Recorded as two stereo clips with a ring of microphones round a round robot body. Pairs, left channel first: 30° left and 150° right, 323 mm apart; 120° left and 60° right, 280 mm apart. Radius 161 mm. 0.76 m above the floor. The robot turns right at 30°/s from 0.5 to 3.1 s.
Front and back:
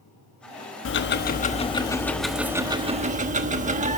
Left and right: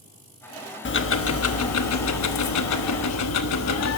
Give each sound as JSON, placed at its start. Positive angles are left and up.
{"t": 0.8, "sound": "ticking", "azimuth_deg": 75, "distance_m": 1.1}